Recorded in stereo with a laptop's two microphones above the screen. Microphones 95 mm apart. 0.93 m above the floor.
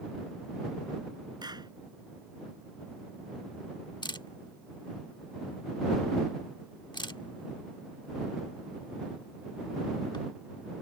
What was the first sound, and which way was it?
A clap, 50° right (ahead or behind).